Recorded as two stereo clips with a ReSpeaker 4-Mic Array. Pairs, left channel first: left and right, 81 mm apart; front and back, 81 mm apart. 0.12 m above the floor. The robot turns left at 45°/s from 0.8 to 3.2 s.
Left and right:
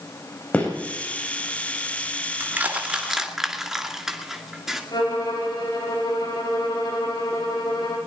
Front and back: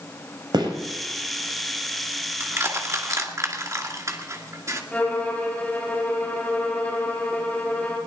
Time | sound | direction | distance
0.5 | a gunshot | 160° left | 5.5 m
2.4 | crushing | 140° right | 2 m
4.9 | a violin | 70° left | 4.5 m